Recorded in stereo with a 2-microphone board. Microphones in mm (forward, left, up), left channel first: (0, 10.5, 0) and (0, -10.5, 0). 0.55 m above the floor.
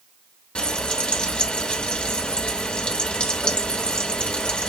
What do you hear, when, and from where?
0.6 s frying: 55° left (ahead or behind), 0.9 m